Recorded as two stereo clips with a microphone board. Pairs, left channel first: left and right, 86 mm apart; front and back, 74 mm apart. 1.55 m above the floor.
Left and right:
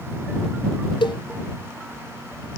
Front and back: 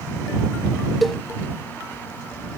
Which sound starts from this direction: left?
A cowbell, at 1.0 s.